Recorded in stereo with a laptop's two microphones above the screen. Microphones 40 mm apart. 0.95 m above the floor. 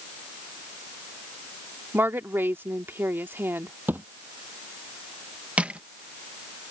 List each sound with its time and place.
1.9 s a woman speaking: 65° right (ahead or behind)
3.9 s a thud: 55° right (ahead or behind)
5.6 s crushing: 30° right (ahead or behind)